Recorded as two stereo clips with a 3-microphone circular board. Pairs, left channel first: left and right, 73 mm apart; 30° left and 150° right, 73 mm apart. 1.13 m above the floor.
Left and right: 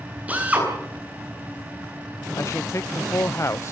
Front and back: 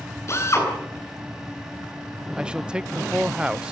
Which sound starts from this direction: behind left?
A man speaking, at 2.4 s.